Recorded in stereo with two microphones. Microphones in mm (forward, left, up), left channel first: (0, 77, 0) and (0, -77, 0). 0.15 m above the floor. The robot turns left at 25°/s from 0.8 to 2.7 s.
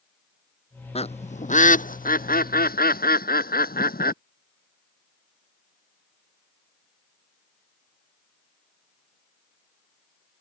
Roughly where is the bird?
Left.